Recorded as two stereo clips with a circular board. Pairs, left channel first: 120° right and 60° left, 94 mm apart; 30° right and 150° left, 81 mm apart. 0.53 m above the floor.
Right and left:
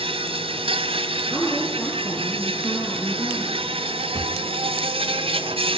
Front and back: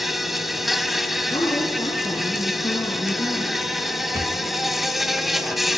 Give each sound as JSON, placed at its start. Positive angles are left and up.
{"t": 0.0, "sound": "an insect", "azimuth_deg": 60, "distance_m": 1.9}
{"t": 1.3, "sound": "a woman speaking", "azimuth_deg": -5, "distance_m": 7.5}
{"t": 4.2, "sound": "a drawer", "azimuth_deg": 100, "distance_m": 2.0}